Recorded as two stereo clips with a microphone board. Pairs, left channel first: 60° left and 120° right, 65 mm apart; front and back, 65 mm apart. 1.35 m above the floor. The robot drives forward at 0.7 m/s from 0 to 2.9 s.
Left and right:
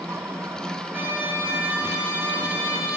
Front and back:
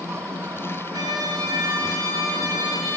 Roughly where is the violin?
Behind.